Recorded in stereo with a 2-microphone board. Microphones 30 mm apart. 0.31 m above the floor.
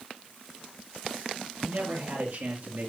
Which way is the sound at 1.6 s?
75° right (ahead or behind).